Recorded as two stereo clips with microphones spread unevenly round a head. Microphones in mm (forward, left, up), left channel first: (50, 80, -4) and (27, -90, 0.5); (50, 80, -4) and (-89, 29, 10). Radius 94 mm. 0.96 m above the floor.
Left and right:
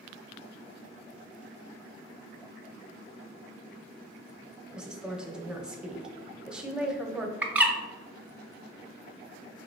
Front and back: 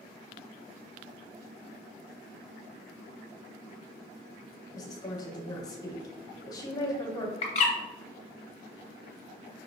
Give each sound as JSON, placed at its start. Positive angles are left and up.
{"t": 4.7, "sound": "a woman speaking", "azimuth_deg": -15, "distance_m": 0.8}
{"t": 7.4, "sound": "a bird", "azimuth_deg": -15, "distance_m": 0.7}